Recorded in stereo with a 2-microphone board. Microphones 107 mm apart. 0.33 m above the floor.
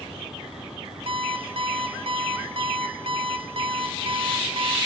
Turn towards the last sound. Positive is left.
turn(degrees=-65)  # may be behind; listen again after turning